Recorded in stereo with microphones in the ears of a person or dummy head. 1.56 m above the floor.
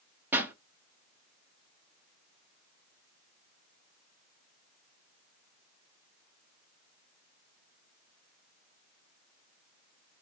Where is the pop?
5° right (ahead or behind), 0.8 m.